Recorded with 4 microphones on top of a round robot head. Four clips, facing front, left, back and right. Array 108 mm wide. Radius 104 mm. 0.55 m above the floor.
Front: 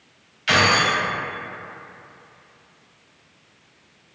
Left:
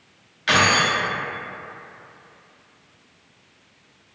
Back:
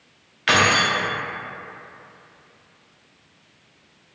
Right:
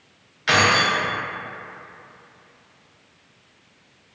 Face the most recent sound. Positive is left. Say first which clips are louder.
# even, even
turn(degrees=-170)